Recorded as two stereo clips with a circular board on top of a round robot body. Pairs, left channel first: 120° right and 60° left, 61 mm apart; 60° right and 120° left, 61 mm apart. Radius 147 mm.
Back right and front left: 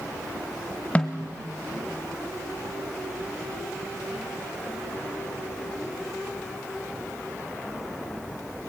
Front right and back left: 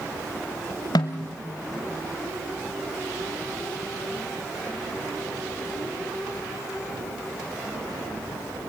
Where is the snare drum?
50° right, 0.5 m.